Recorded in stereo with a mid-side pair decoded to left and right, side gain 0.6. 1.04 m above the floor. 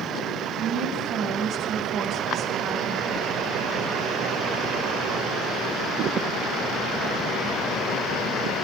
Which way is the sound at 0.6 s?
60° right.